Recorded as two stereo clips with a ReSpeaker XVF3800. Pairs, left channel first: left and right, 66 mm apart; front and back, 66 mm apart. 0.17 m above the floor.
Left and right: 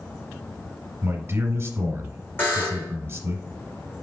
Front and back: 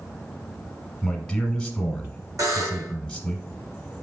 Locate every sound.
1.0 s a man speaking: 75° right, 1.2 m
2.4 s a buzzer: 145° left, 2.5 m